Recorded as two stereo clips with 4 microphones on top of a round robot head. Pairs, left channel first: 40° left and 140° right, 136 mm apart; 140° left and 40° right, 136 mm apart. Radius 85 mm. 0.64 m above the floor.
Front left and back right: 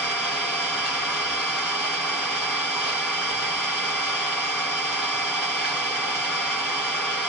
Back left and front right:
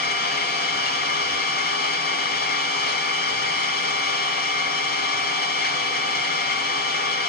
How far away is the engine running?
About 2.5 m.